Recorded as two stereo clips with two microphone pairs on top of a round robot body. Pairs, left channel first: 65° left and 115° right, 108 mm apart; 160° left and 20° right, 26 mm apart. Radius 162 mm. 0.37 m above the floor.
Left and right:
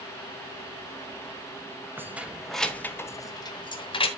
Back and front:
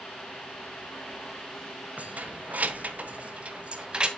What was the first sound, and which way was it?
Keys jangling, 40° right.